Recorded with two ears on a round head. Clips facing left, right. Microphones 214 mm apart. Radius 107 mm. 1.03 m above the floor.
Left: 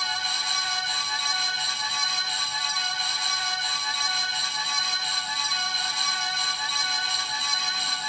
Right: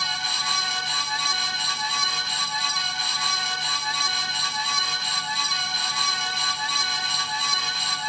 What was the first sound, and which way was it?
Only background noise.